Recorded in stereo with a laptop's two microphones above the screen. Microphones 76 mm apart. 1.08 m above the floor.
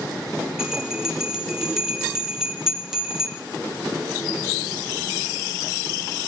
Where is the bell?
10° right (ahead or behind), 0.7 m.